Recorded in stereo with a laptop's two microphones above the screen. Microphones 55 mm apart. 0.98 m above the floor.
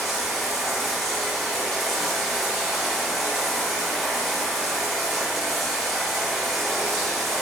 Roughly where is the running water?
Centre.